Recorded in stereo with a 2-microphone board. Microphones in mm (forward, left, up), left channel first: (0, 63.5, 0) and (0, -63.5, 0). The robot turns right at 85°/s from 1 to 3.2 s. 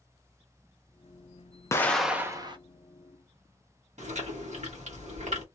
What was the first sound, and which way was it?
An explosion, 155° left.